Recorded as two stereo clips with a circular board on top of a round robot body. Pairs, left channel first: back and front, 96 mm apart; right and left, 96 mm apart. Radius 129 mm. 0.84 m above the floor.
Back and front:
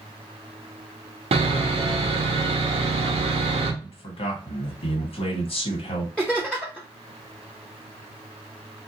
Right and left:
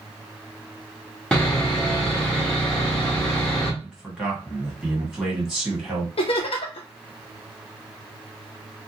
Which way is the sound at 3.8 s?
175° left.